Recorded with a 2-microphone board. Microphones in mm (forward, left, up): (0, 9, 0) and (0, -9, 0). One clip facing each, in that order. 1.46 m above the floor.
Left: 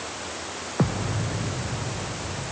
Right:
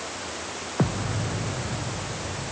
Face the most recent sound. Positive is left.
No sound to turn to.